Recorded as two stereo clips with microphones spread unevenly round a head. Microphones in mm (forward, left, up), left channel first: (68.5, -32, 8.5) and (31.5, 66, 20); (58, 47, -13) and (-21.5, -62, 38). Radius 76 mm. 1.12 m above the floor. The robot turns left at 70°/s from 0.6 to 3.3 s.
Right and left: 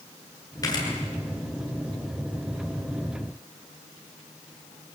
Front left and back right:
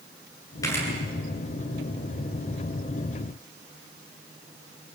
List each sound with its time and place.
0.6 s a camera shutter: 15° right, 8.5 m; by 0.9 s 30° right, 8.5 m